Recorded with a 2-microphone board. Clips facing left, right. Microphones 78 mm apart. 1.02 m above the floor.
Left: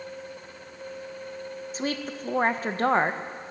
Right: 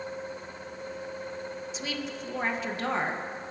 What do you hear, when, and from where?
1.7 s a woman speaking: 40° left (ahead or behind), 0.7 m